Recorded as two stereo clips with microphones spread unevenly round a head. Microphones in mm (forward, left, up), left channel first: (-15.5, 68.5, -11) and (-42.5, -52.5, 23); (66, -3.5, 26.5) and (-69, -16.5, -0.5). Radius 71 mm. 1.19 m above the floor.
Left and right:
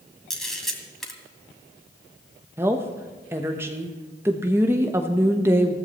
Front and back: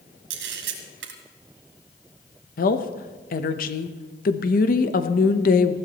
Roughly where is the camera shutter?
Behind.